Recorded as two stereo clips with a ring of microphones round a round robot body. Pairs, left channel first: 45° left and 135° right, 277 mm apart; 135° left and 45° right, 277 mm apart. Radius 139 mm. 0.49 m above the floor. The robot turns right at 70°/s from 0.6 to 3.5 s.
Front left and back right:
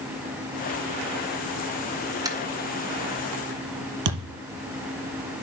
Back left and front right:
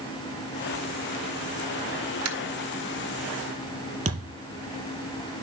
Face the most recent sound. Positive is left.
turn(degrees=-110)